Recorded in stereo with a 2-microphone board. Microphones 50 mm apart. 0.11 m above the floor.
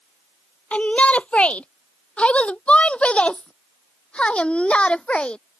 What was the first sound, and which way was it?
A shout, 25° left (ahead or behind).